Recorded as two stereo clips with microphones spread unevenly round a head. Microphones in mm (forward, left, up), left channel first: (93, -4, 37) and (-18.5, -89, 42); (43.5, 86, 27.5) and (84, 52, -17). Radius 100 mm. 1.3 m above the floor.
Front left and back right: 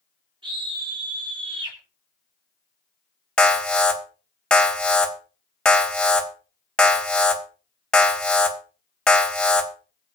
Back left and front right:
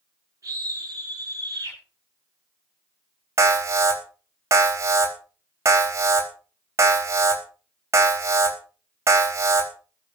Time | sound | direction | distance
0.4 | a scream | 85° right | 7.5 m
3.4 | an alarm | 45° right | 4 m